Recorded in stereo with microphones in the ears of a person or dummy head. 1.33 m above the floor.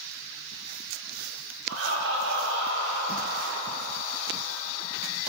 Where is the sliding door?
No sliding door in this recording.